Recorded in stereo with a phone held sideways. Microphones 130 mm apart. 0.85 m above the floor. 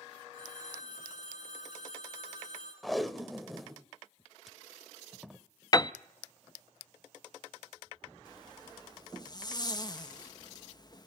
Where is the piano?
30° left (ahead or behind), 0.6 m.